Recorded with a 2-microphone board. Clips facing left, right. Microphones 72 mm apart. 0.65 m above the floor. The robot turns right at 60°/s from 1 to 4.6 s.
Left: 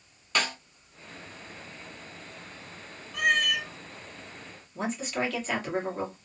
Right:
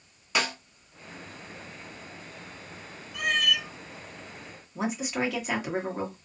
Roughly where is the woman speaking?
Centre.